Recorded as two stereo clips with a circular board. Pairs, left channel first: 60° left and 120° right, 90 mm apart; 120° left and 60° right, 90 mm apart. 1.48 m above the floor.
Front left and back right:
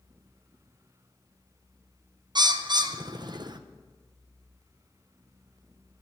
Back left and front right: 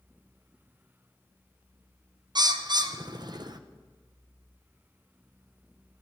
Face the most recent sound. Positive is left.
turn(degrees=-90)